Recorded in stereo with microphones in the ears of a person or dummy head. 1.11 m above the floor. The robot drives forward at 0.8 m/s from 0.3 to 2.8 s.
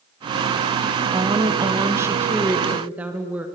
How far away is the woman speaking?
About 0.7 m.